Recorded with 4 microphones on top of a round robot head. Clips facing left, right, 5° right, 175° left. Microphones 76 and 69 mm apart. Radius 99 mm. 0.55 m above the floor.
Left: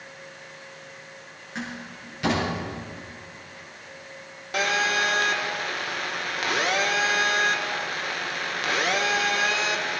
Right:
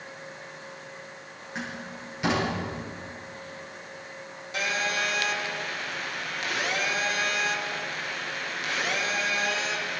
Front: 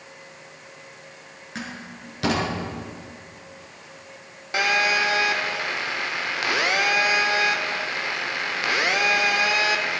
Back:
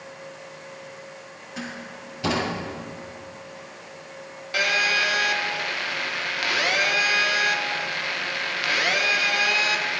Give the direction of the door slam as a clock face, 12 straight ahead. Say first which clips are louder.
Left 1 dB, even; 12 o'clock.